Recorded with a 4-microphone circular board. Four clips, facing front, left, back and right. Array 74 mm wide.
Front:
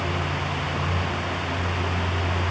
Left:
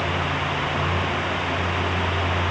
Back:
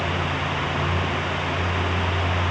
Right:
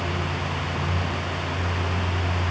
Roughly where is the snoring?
No snoring in this recording.